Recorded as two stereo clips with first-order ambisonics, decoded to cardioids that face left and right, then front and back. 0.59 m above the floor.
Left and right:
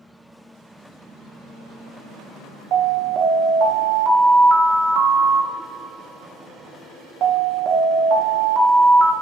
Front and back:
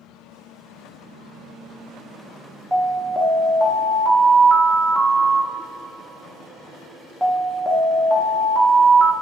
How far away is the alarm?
About 0.7 m.